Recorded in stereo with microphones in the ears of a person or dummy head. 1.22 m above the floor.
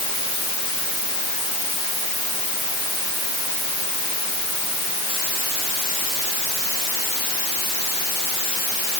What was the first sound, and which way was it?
Only background noise.